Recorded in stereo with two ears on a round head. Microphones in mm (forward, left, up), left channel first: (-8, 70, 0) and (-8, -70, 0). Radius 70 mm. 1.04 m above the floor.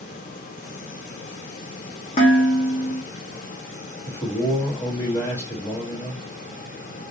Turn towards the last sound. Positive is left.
turn(degrees=20)  # may be behind; listen again after turning